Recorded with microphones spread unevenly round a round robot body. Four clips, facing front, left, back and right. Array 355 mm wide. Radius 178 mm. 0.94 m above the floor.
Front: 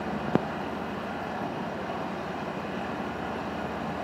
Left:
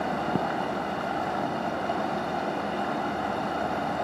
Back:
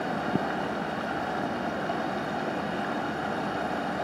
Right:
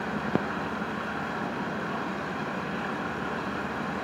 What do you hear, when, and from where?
0.0 s running water: 160° left, 2.5 m